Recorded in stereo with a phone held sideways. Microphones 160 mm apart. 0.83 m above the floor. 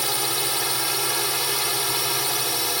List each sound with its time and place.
0.0 s a drone: centre (ahead or behind)